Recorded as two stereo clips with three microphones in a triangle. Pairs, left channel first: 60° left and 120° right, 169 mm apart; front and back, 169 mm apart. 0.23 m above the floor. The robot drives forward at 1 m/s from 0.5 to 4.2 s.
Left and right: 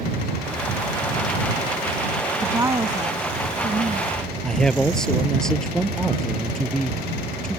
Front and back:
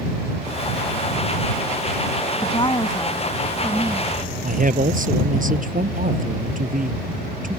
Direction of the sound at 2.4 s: 45° right.